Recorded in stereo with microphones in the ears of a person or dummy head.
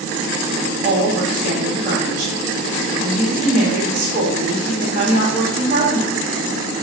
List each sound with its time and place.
0.6 s a woman speaking: 30° right (ahead or behind), 1.4 m